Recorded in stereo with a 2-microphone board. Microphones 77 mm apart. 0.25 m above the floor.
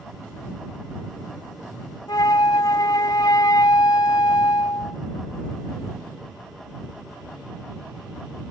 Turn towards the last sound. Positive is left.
turn(degrees=55)  # may be behind; listen again after turning